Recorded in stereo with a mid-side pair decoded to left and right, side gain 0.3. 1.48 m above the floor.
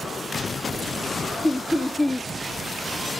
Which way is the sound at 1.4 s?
25° left.